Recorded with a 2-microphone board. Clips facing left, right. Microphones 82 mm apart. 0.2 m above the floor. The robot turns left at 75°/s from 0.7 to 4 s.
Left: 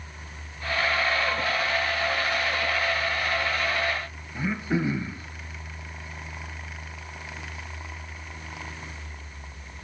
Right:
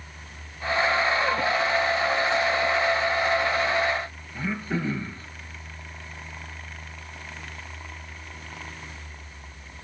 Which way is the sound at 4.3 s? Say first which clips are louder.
Left 2 dB; 10° left (ahead or behind).